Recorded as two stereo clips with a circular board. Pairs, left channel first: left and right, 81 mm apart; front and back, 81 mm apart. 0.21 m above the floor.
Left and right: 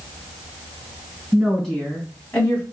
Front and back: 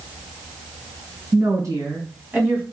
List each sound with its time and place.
1.3 s a woman speaking: straight behind, 2 m; by 2.6 s 130° left, 1.8 m